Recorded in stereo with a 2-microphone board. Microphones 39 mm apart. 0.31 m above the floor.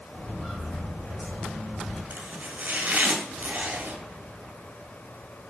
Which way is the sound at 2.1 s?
50° right (ahead or behind).